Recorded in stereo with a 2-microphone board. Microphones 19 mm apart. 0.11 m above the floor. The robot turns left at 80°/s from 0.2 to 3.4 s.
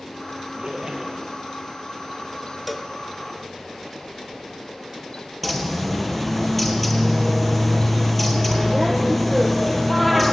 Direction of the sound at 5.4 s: Centre (ahead or behind).